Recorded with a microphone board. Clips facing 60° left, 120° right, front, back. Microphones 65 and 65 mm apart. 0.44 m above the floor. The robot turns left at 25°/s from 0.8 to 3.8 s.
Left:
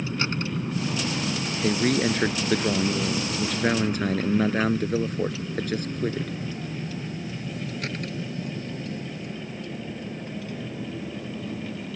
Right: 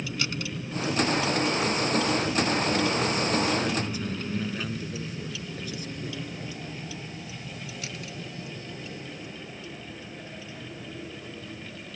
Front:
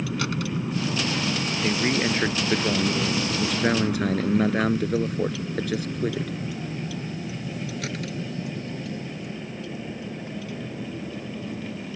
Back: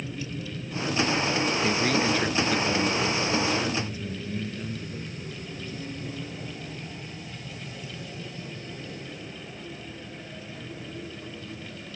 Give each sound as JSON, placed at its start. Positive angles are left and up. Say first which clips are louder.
{"t": 0.0, "sound": "a vehicle", "louder": "left 4 dB, front 7 dB", "azimuth_deg": 0}
{"t": 1.6, "sound": "a man speaking", "louder": "left 3 dB, front 3 dB", "azimuth_deg": 75}